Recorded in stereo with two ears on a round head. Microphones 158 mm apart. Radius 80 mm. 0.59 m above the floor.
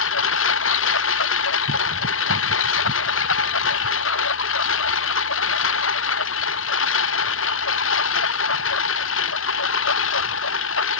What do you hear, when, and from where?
0.0 s a lawn mower: 85° left